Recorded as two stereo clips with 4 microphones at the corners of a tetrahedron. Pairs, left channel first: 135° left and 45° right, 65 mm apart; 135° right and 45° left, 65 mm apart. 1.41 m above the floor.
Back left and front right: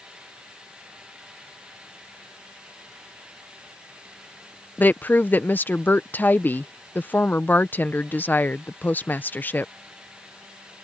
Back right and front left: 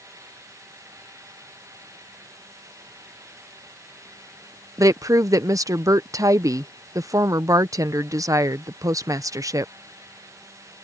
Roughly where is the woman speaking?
Left.